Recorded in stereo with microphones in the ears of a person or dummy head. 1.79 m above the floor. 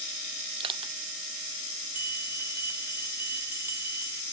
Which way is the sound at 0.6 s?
30° right (ahead or behind).